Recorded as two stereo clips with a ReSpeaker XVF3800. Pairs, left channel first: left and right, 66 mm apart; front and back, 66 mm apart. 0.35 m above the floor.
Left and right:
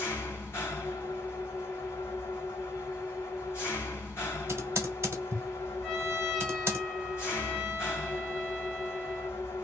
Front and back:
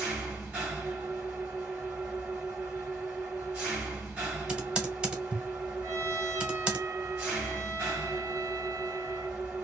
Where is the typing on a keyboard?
110° right, 1.0 m.